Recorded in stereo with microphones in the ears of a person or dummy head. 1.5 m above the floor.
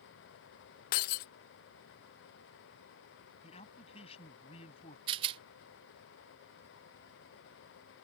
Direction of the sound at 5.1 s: 30° right (ahead or behind).